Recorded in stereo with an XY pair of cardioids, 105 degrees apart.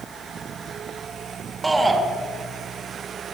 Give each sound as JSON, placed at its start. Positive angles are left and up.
{"t": 1.6, "sound": "a shout", "azimuth_deg": -20, "distance_m": 3.5}